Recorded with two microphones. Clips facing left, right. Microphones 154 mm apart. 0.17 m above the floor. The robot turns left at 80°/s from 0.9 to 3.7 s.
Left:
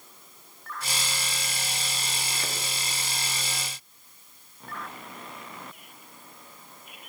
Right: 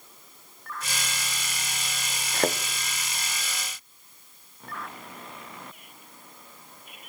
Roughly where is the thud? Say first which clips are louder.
Right 11 dB; right.